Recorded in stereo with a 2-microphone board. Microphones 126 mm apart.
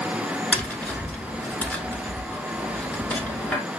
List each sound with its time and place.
0.5 s tapping: 10° left (ahead or behind), 1.0 m